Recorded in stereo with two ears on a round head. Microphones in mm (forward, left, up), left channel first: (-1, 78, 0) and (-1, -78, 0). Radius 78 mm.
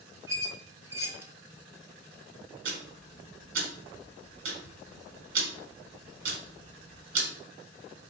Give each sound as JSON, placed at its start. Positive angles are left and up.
{"t": 0.3, "sound": "a squeak", "side_deg": -15, "distance_m": 0.9}
{"t": 2.6, "sound": "ticking", "side_deg": -85, "distance_m": 1.5}